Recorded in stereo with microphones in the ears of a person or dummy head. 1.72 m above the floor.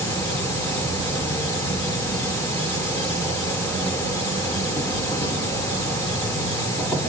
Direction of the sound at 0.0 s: 15° left (ahead or behind).